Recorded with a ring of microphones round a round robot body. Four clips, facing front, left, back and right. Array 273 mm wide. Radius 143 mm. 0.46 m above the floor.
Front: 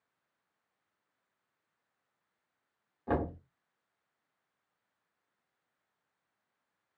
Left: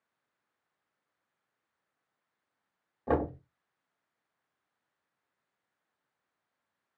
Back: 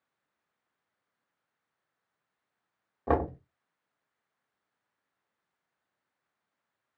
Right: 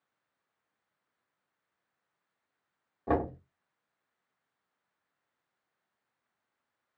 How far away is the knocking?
About 1.3 m.